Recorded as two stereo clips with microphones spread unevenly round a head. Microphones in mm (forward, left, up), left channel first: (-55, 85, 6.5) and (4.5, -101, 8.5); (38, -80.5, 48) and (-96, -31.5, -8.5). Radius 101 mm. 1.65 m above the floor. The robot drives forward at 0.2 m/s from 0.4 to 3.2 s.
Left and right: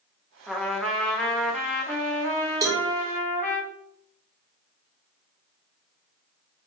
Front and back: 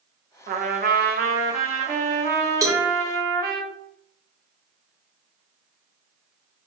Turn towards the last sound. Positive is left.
turn(degrees=-135)